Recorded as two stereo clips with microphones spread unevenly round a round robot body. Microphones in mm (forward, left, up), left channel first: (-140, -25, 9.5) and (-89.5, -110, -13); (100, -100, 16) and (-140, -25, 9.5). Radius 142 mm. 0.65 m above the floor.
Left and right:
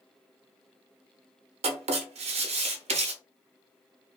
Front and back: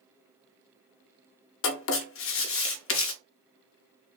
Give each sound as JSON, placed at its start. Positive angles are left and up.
{"t": 1.6, "sound": "writing", "azimuth_deg": -60, "distance_m": 0.5}